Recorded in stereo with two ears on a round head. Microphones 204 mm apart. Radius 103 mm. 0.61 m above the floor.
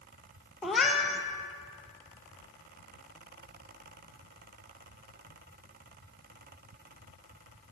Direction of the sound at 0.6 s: Centre (ahead or behind).